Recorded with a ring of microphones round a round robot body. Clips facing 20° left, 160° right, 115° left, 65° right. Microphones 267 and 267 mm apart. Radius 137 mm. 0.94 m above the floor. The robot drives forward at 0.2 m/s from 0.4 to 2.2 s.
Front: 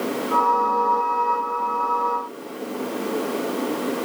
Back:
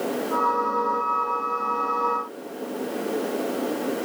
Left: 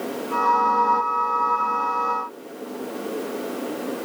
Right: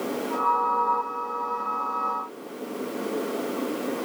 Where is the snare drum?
I don't hear a snare drum.